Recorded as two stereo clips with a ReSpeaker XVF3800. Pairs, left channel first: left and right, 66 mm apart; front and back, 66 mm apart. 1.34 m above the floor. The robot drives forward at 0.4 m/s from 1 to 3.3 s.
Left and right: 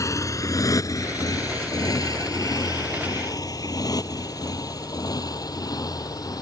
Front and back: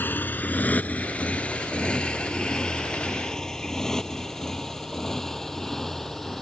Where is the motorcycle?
55° left; by 6.4 s 85° left.